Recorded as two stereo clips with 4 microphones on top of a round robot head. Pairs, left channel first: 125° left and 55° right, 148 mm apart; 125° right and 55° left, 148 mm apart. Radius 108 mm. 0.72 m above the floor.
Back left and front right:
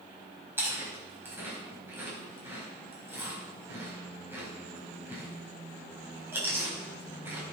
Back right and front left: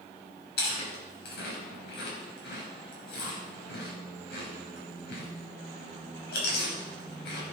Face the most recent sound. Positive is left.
turn(degrees=-130)